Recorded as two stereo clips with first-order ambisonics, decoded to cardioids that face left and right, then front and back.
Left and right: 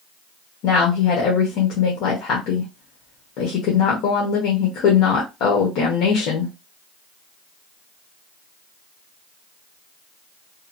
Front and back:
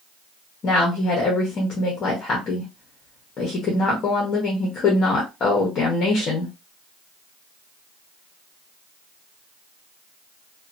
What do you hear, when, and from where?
0.6 s a woman speaking: 60° left, 0.9 m